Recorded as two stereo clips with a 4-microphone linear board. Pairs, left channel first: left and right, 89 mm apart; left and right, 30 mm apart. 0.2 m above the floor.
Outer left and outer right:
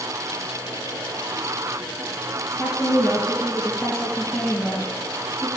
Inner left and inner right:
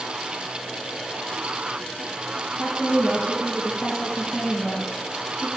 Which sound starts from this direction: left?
A woman speaking, at 2.6 s.